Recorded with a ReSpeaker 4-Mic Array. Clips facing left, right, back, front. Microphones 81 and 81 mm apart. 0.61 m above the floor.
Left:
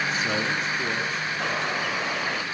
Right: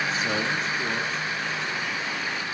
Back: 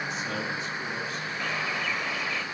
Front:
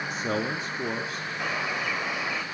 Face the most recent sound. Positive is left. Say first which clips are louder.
# left 3 dB, front 2 dB
turn(degrees=75)